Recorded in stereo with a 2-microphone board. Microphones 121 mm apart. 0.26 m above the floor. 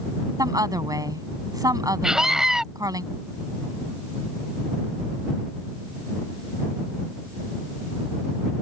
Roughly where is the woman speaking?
Right.